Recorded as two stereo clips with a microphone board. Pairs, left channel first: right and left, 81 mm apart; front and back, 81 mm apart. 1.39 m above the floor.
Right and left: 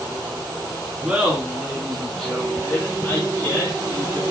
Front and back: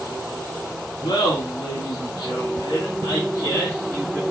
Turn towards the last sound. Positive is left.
turn(degrees=-55)